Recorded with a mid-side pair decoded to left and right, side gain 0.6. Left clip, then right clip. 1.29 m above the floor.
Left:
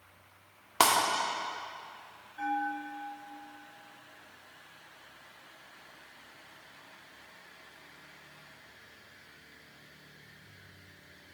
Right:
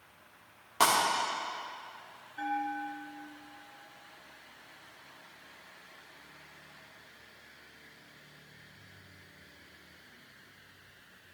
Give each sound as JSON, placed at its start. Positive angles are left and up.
{"t": 0.8, "sound": "breaking glass", "azimuth_deg": 40, "distance_m": 1.8}
{"t": 2.4, "sound": "a bell", "azimuth_deg": -20, "distance_m": 2.0}